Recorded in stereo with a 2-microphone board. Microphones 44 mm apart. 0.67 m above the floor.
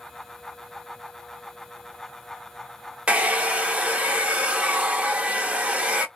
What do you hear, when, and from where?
3.1 s a hair dryer: 30° right (ahead or behind), 0.7 m